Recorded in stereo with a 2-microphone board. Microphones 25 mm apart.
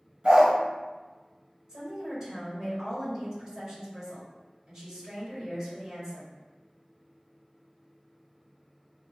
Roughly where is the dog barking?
Right.